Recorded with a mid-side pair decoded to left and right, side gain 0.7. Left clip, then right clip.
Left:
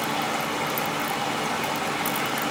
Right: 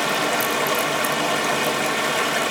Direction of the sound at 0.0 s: 65° right.